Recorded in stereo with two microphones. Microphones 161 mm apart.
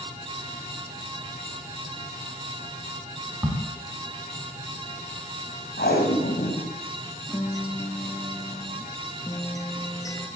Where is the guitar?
20° left (ahead or behind), 3 m.